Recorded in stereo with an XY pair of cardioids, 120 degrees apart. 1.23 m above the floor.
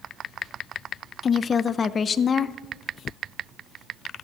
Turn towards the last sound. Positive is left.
turn(degrees=35)